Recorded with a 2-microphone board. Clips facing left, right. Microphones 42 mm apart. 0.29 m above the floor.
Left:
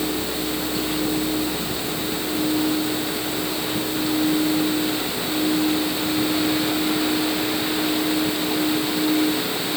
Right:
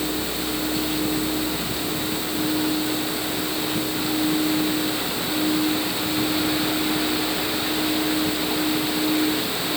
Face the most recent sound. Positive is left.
No sound to turn to.